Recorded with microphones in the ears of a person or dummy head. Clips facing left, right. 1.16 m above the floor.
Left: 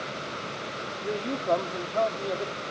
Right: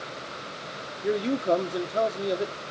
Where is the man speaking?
20° right (ahead or behind), 0.9 m.